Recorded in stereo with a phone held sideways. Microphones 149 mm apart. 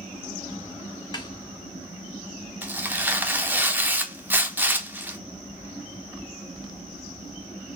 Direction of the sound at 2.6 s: 10° right (ahead or behind).